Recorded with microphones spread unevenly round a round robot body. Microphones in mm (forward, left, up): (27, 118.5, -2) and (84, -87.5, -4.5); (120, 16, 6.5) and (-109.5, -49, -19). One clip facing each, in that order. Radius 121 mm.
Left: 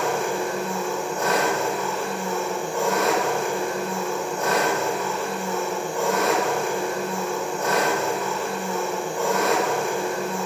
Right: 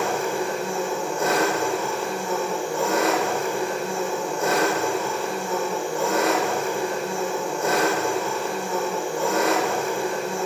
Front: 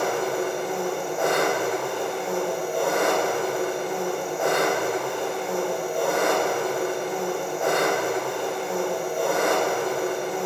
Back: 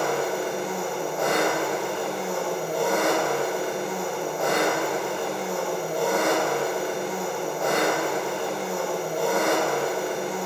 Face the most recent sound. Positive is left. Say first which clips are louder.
# even, front 1 dB
turn(degrees=105)